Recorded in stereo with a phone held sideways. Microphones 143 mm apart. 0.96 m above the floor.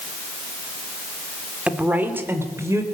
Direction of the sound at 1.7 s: 10° right (ahead or behind).